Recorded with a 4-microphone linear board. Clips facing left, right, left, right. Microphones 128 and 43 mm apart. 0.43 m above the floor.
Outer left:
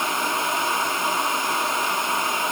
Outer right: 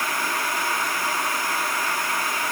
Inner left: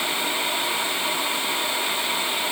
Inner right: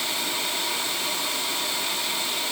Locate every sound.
Only background noise.